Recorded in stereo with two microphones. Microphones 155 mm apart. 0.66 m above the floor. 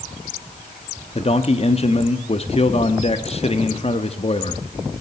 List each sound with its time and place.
1.1 s a man speaking: 40° left (ahead or behind), 0.9 m